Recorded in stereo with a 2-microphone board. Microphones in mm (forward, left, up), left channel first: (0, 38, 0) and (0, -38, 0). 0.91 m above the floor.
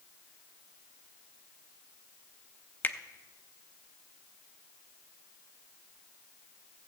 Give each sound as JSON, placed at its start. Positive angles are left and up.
{"t": 2.8, "sound": "a finger snap", "side_deg": 25, "distance_m": 0.6}